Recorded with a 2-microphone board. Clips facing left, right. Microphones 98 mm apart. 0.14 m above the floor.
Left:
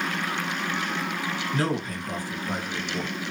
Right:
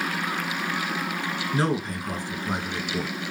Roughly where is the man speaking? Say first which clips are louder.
Right 3 dB; right.